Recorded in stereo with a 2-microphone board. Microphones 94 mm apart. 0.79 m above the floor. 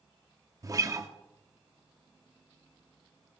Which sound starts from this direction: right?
A guitar, at 0.6 s.